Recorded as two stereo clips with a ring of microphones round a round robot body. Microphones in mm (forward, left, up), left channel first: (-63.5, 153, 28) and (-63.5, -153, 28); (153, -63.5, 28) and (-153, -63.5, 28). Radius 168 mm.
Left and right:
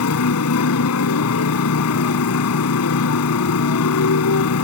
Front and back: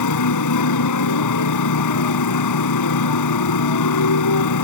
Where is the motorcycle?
40° left.